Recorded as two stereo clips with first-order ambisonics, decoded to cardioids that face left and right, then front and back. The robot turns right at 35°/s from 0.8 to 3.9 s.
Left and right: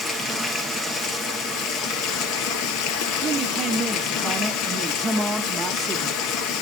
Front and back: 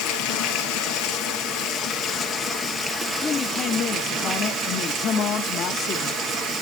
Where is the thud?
No thud in this recording.